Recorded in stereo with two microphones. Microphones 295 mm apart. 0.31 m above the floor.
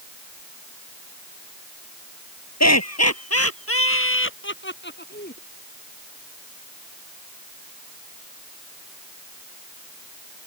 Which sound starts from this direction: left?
Laughter, at 2.6 s.